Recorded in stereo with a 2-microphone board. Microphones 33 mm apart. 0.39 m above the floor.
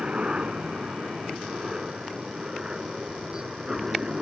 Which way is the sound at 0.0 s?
30° right (ahead or behind).